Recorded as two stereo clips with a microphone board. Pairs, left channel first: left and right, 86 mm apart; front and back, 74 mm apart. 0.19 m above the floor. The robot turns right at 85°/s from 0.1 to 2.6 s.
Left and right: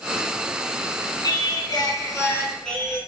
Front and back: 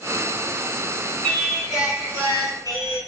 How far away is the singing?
About 0.8 m.